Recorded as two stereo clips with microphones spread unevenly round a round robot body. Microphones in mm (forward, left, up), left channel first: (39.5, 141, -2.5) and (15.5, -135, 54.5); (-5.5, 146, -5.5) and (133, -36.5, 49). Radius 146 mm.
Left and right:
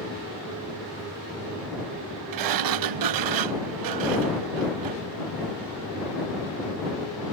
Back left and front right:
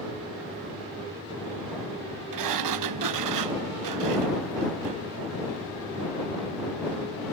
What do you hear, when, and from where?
2.3 s a sliding door: 70° right